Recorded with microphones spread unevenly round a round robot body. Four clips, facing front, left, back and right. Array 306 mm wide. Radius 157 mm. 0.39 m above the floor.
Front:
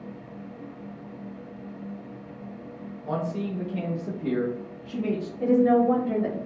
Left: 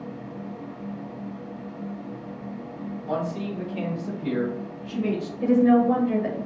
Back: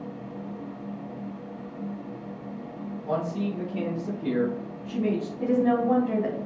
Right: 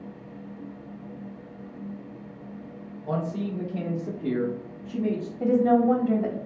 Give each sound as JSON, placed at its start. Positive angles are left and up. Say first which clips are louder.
{"t": 3.1, "sound": "a man speaking", "louder": "even, back 1 dB", "azimuth_deg": -60, "distance_m": 1.8}
{"t": 5.4, "sound": "a woman speaking", "louder": "left 2 dB, front 4 dB", "azimuth_deg": -90, "distance_m": 1.9}